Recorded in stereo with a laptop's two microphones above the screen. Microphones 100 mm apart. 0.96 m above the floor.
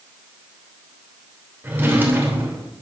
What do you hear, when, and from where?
1.6 s a drawer: 20° right (ahead or behind), 2.5 m